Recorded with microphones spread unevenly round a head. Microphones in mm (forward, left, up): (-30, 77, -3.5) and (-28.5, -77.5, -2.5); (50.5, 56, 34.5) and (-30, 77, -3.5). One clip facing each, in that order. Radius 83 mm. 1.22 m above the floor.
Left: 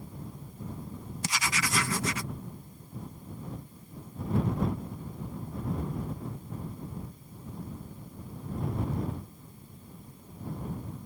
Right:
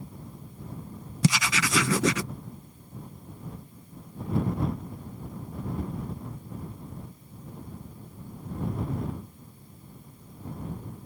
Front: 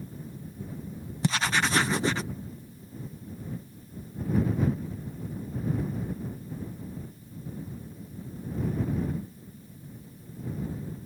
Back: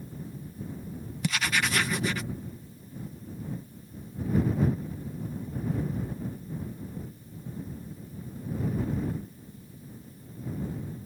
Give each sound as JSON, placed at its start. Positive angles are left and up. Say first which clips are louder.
{"t": 1.2, "sound": "writing", "louder": "right 8 dB, front 2 dB", "azimuth_deg": -95}